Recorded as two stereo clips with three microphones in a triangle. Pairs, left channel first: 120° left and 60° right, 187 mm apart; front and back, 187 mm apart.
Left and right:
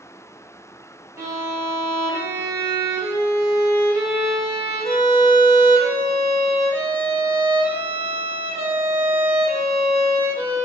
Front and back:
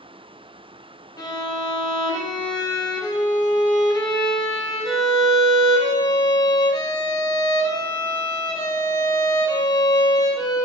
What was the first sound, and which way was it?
A violin, 15° right.